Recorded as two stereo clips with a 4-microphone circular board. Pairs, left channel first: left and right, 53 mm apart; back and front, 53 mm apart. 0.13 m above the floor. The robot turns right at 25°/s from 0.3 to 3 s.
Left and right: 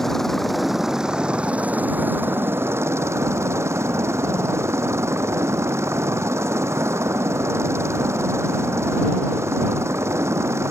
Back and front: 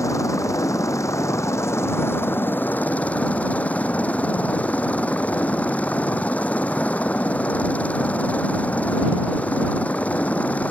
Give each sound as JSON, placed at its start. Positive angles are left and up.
{"t": 0.0, "sound": "a helicopter", "azimuth_deg": 175}